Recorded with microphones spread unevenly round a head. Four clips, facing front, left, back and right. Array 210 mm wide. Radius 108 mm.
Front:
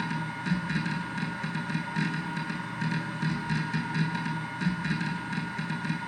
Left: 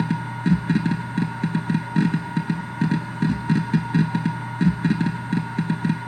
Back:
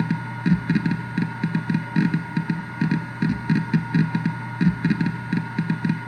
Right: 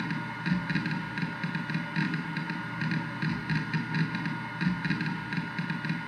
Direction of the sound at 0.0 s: 130° left.